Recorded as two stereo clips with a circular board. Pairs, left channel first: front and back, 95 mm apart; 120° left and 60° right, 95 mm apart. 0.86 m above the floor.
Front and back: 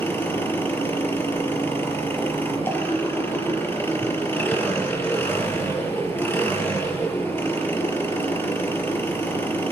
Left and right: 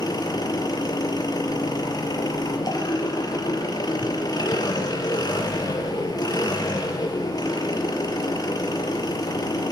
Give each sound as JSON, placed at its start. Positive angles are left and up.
{"t": 0.0, "sound": "an engine running", "azimuth_deg": 70, "distance_m": 5.0}